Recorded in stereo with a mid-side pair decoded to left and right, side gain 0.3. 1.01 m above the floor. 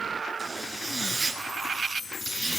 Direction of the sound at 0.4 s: 40° right.